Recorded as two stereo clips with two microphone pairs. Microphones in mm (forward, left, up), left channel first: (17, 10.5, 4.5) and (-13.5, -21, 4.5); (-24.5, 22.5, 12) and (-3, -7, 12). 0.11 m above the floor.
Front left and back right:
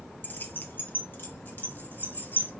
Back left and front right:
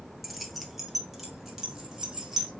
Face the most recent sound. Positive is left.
turn(degrees=25)